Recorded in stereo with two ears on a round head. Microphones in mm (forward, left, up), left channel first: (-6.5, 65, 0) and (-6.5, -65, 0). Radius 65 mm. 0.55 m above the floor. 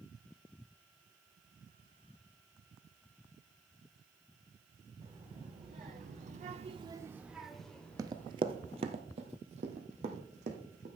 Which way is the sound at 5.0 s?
40° right (ahead or behind).